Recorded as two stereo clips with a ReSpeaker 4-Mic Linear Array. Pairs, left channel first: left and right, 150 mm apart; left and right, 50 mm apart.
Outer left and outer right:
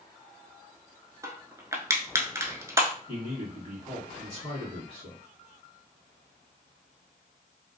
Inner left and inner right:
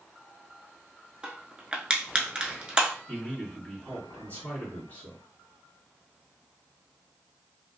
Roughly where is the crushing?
Centre.